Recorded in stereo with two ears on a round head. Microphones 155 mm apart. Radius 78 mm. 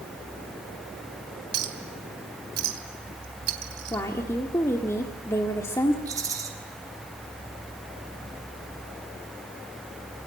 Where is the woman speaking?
15° left (ahead or behind), 1.7 m.